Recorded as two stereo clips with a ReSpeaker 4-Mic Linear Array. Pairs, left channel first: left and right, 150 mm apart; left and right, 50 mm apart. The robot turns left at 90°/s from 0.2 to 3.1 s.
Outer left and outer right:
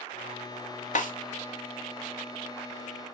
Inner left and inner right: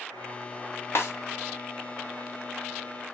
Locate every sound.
0.9 s a snare drum: 60° left (ahead or behind), 0.9 m; by 1.1 s 70° left (ahead or behind), 0.9 m